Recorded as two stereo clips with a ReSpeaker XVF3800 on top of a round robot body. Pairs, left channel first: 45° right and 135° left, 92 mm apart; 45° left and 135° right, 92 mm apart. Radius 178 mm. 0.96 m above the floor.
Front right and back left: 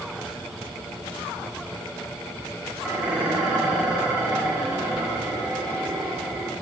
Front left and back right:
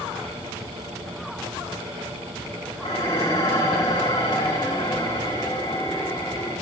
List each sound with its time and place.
2.8 s dishes clattering: 55° left, 6 m